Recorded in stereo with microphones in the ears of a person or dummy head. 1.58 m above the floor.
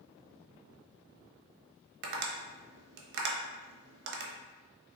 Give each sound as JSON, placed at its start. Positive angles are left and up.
{"t": 2.0, "sound": "tapping", "side_deg": -65, "distance_m": 0.6}